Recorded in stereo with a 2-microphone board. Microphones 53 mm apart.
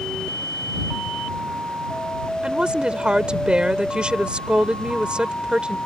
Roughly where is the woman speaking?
Centre.